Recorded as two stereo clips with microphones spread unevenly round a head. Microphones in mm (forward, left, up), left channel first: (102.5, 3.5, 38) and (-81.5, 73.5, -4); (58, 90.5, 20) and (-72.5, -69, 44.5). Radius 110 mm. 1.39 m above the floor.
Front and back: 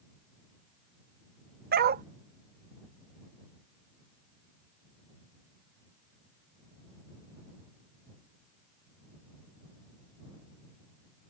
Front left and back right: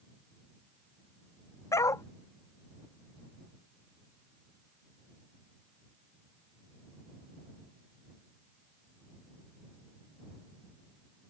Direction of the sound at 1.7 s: 130° left.